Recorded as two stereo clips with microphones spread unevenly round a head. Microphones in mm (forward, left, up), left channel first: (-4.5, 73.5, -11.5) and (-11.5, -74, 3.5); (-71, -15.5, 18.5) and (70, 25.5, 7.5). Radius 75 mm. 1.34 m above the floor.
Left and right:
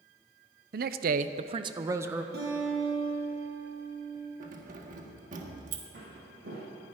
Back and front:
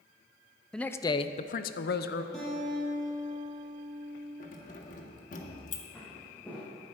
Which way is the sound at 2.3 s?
80° right.